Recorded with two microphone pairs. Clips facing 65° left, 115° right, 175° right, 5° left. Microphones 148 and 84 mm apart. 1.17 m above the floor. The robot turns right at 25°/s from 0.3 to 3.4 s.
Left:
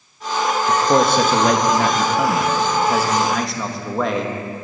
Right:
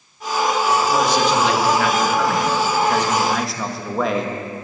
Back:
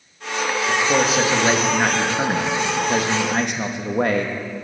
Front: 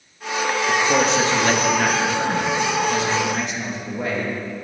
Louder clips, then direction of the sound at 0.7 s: Left 5 dB, even; 90° left.